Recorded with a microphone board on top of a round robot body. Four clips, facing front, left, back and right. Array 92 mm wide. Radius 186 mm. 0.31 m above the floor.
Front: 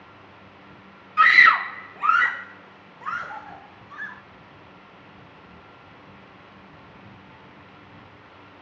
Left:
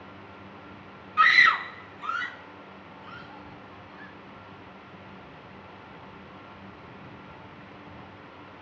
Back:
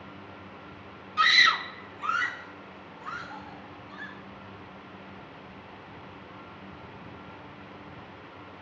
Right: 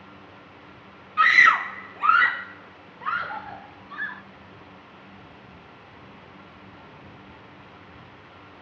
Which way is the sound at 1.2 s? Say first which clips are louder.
Right 3 dB, front 8 dB; 10° left.